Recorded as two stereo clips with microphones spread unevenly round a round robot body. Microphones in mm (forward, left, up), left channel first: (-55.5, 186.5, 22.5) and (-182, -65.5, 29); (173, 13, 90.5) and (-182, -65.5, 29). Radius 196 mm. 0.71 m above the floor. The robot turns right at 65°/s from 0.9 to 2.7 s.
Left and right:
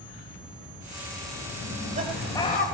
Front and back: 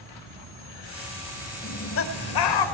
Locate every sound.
1.6 s laughter: 70° right, 3.5 m; by 2.6 s straight ahead, 3.5 m